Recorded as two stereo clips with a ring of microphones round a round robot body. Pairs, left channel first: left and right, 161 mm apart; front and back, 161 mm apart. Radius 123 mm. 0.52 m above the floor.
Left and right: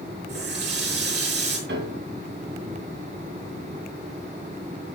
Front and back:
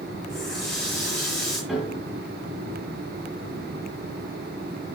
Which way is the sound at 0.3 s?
85° right.